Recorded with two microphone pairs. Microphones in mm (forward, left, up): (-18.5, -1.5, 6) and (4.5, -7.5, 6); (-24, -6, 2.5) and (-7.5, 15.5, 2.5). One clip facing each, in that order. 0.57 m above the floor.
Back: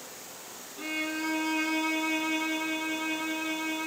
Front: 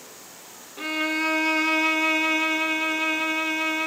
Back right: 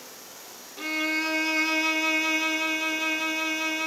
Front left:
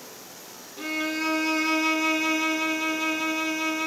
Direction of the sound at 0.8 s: 45° right.